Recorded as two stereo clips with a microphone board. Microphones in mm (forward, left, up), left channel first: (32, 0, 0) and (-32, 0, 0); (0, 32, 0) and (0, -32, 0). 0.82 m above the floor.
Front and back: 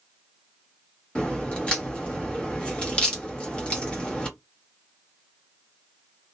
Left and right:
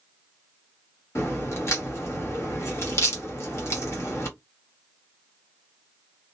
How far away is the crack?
About 1.0 m.